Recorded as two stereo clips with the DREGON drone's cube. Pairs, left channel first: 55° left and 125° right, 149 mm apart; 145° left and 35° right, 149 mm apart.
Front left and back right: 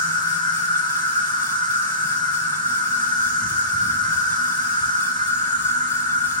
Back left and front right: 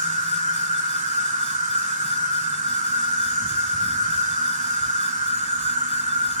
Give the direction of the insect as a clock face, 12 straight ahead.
12 o'clock.